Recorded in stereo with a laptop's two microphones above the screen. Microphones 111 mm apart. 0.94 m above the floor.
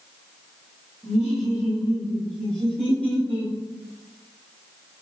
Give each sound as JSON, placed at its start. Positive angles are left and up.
{"t": 1.0, "sound": "laughter", "side_deg": -10, "distance_m": 1.2}